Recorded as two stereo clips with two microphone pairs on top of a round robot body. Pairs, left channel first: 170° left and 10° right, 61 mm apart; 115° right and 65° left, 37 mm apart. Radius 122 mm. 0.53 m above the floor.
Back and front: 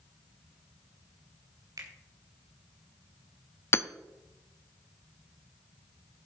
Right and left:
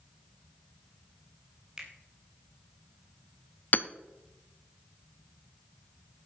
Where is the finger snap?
Straight ahead, 3 m.